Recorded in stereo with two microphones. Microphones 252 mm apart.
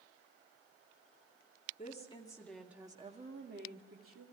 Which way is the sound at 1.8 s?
30° left (ahead or behind).